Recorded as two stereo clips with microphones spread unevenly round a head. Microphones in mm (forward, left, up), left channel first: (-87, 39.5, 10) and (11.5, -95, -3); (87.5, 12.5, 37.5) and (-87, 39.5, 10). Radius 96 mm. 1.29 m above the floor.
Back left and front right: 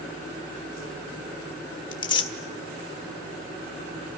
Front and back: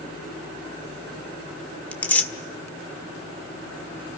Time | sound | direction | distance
1.9 | tearing paper | 65° left | 1.4 m